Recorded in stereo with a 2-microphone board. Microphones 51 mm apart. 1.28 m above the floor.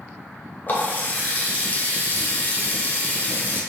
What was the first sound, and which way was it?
A running tap, 35° left (ahead or behind).